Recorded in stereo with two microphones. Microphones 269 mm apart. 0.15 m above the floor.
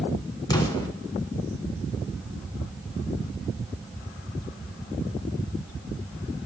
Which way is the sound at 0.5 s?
15° left (ahead or behind).